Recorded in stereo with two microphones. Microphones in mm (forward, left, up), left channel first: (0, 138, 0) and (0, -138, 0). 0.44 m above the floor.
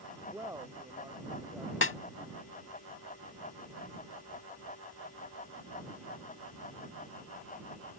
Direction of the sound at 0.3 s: 10° right (ahead or behind).